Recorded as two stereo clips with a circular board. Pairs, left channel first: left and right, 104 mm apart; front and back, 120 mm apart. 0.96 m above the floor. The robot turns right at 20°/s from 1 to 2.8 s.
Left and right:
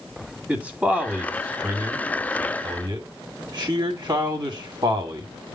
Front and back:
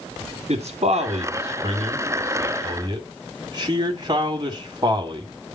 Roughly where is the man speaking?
Behind.